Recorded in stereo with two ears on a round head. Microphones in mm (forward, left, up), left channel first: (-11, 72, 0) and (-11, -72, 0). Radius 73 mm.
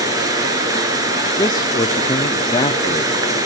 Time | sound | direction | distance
0.0 | running water | 20° right (ahead or behind) | 2.5 m
1.4 | a man speaking | 25° left (ahead or behind) | 0.7 m